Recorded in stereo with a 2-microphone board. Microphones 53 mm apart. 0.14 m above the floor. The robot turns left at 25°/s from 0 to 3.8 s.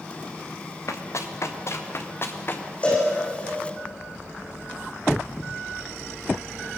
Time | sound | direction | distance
0.9 | running footsteps | 65° left (ahead or behind) | 3 m
2.8 | a cowbell | 25° left (ahead or behind) | 9 m